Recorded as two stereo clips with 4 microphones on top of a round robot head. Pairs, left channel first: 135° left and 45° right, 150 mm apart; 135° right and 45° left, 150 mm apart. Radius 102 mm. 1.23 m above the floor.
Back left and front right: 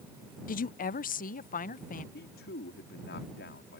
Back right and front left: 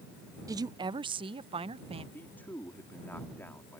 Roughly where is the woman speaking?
Behind left.